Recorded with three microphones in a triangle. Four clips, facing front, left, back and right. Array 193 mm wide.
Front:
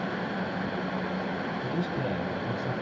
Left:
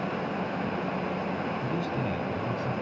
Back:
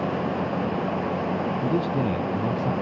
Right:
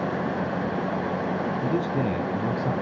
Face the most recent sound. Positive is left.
turn(degrees=-140)